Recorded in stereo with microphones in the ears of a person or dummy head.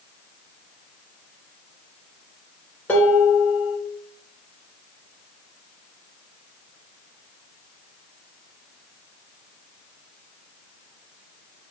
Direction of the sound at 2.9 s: 10° left (ahead or behind).